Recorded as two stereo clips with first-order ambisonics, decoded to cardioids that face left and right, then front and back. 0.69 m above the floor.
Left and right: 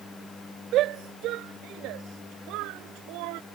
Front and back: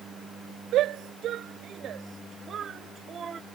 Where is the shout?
135° right; by 3.4 s 110° right.